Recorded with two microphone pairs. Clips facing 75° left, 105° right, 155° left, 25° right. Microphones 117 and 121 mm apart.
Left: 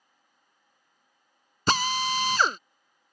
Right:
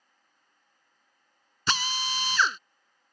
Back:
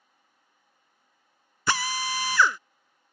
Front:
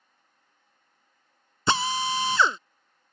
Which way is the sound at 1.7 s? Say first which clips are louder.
Left 6 dB, front 3 dB; 35° left.